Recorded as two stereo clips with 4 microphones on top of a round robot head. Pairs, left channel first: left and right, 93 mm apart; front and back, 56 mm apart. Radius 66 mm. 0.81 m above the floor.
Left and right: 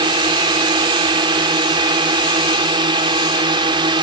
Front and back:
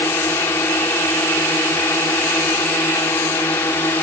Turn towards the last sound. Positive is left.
turn(degrees=-55)